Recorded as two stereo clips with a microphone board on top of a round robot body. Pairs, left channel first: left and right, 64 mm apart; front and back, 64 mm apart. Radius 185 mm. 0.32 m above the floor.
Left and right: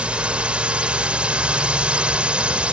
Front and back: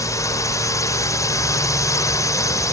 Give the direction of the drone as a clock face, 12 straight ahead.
1 o'clock.